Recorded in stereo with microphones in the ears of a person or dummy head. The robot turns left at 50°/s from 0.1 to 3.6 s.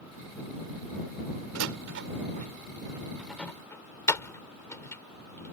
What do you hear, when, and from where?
1.6 s a door slam: 85° right; by 5.5 s 15° left (ahead or behind)